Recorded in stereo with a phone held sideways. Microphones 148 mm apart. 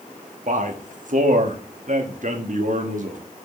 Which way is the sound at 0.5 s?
60° right (ahead or behind).